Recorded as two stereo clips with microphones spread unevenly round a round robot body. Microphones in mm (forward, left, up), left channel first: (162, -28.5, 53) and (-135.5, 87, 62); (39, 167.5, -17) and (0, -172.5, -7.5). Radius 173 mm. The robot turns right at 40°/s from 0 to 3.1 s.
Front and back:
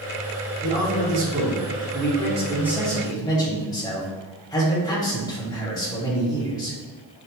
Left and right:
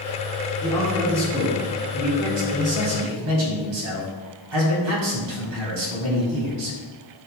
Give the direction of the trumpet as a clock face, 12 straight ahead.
I don't hear a trumpet.